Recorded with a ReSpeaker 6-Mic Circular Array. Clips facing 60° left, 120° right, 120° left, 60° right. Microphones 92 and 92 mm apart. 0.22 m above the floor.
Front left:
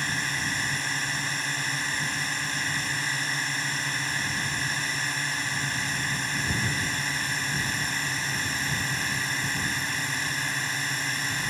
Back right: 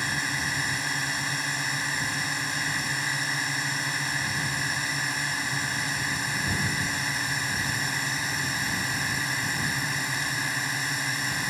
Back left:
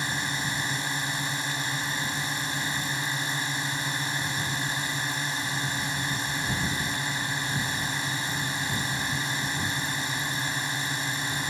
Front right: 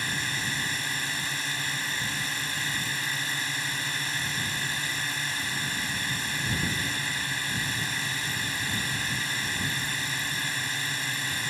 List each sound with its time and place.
0.0 s a drone: 160° left